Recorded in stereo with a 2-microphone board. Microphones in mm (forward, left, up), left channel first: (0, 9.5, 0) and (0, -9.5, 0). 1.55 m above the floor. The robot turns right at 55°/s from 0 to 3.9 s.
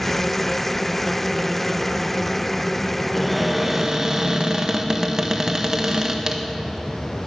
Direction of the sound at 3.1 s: 170° left.